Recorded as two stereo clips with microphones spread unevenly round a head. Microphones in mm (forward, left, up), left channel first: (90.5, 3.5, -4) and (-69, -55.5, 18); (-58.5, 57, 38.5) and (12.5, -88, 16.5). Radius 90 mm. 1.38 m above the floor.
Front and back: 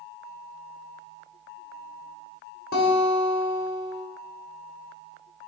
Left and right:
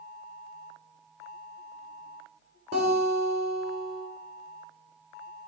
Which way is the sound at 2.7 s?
10° right.